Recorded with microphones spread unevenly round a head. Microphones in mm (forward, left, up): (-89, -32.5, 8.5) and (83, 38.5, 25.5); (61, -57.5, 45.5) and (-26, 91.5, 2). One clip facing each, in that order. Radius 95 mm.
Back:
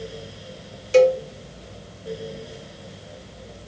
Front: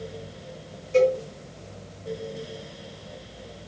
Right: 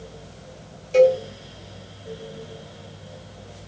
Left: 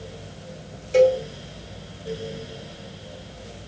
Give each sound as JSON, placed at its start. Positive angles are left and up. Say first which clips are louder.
{"t": 0.9, "sound": "a cowbell", "louder": "back 5 dB, right 1 dB", "azimuth_deg": -150, "distance_m": 0.6}